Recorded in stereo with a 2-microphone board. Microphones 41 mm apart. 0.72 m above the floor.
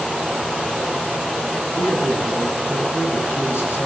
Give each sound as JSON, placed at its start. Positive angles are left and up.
{"t": 1.6, "sound": "a man speaking", "side_deg": 75, "distance_m": 9.0}